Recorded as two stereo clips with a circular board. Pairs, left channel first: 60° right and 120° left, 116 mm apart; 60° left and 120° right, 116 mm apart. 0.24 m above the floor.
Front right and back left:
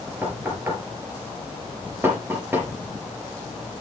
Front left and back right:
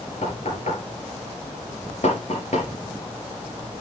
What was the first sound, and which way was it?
Knocking, 50° left.